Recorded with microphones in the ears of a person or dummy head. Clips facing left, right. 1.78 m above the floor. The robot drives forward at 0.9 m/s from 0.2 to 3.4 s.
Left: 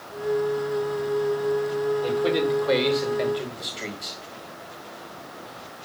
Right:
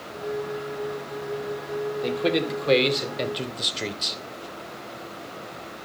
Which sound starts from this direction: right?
A man speaking, at 2.0 s.